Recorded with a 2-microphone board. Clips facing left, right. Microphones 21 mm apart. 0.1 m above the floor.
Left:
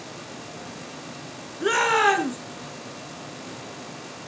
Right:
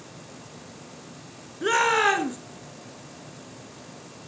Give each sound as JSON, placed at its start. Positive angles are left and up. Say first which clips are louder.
{"t": 1.6, "sound": "a shout", "louder": "left 1 dB", "side_deg": 0, "distance_m": 1.4}